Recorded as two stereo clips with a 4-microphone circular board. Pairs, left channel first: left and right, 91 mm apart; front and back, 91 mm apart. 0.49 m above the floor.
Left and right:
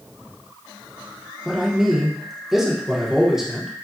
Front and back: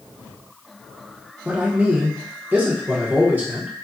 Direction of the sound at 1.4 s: 165° right.